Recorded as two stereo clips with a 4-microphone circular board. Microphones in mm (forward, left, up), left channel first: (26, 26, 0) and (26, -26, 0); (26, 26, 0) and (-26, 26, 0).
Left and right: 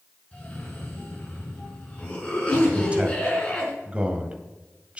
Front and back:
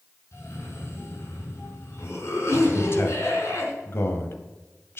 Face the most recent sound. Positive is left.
turn(degrees=-30)